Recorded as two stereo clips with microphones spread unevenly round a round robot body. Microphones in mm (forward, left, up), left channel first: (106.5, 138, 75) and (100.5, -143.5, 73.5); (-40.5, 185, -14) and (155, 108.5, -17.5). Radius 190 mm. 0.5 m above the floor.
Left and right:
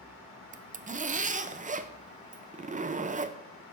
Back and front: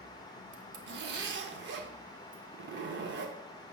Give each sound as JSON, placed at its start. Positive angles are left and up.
{"t": 0.5, "sound": "a zipper", "azimuth_deg": -30, "distance_m": 0.5}